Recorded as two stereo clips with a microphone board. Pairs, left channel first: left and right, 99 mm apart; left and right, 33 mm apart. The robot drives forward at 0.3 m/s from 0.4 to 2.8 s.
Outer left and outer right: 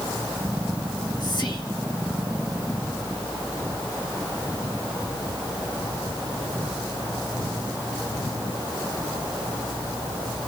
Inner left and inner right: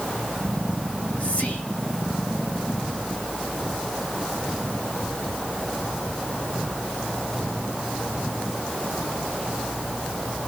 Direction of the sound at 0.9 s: 45° left (ahead or behind).